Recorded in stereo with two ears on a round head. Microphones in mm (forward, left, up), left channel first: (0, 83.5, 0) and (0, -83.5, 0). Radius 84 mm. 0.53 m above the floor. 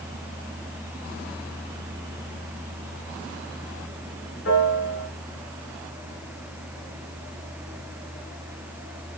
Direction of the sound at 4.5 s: 70° left (ahead or behind).